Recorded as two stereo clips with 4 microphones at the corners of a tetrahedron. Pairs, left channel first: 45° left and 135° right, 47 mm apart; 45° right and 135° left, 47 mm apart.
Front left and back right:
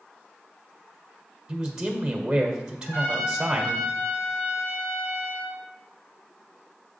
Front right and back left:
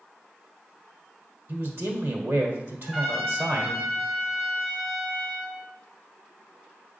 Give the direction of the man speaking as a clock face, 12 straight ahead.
7 o'clock.